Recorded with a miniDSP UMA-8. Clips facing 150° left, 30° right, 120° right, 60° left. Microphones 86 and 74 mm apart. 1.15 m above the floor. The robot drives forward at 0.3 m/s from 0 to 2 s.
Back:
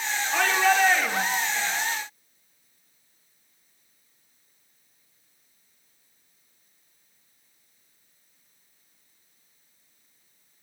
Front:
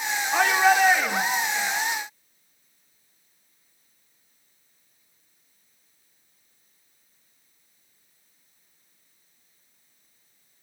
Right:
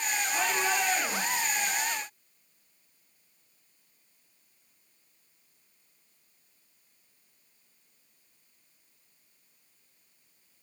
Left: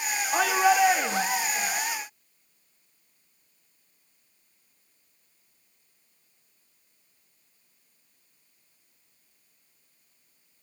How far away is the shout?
About 2 m.